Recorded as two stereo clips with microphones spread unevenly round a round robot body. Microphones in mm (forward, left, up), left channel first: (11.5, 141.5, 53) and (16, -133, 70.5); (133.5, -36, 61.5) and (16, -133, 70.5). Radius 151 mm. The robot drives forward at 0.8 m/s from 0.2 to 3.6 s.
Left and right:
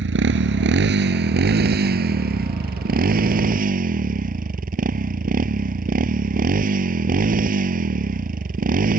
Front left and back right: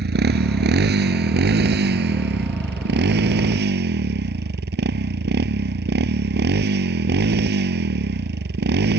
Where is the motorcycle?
140° right; by 9.0 s 150° right.